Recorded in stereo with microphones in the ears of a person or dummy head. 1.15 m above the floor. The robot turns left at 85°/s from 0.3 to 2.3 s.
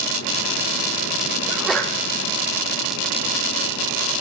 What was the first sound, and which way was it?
A sneeze, 155° right.